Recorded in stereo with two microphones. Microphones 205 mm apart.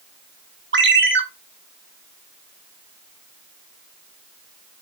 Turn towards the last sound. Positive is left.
turn(degrees=-75)  # may be behind; listen again after turning